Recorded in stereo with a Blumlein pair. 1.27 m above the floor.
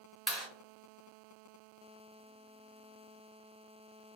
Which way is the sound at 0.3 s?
10° right.